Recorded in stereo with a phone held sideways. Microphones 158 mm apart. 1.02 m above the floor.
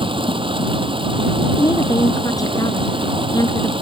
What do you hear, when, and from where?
0.0 s running water: 35° right (ahead or behind)
1.6 s a woman speaking: 25° left (ahead or behind)